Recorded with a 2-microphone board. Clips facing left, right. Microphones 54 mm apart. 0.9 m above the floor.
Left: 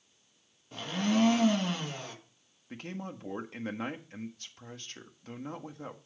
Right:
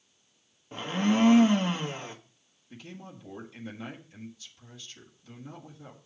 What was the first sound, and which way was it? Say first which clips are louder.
A blender: right 3 dB; 25° right (ahead or behind).